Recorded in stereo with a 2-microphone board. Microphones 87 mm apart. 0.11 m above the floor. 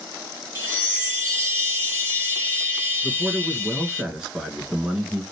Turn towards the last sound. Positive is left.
turn(degrees=-10)  # may be behind; listen again after turning